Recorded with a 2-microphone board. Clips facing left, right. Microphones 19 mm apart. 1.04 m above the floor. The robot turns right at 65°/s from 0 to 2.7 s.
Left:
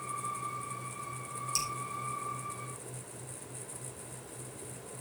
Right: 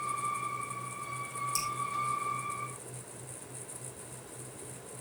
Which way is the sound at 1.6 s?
25° left (ahead or behind).